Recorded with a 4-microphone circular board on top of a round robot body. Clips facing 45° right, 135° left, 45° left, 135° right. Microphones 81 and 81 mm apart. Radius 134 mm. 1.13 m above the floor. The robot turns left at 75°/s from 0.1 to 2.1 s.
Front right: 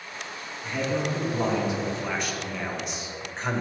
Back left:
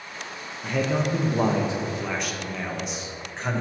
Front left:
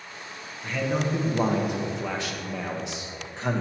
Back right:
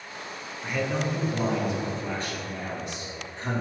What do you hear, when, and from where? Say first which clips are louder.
0.6 s a man speaking: back left 3 dB, front left 1 dB; 155° left, 1.4 m; by 3.6 s 45° left, 1.4 m